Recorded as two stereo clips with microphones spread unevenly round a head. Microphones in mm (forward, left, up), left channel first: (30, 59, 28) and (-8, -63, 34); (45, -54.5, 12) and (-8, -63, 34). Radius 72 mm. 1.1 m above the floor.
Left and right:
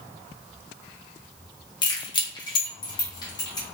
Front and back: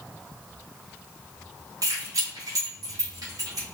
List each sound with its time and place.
1.8 s keys jangling: 130° left, 0.7 m; by 3.6 s 135° left, 1.6 m